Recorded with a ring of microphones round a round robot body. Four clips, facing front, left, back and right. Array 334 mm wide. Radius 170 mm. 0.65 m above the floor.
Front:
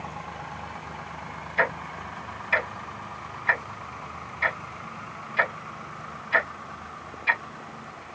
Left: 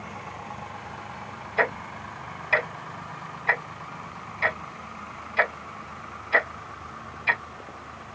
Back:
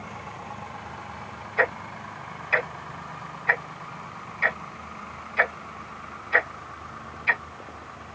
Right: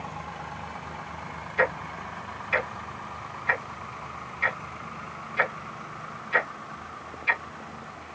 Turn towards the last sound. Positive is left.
turn(degrees=70)